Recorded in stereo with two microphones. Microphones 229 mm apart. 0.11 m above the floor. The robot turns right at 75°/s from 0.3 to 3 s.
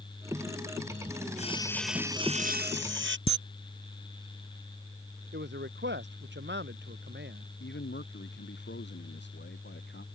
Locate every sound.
1.4 s sawing: 140° left; by 3.2 s 95° right
3.3 s a camera shutter: 25° left (ahead or behind)
5.3 s a man speaking: 50° right (ahead or behind)
7.6 s a man speaking: 50° left (ahead or behind)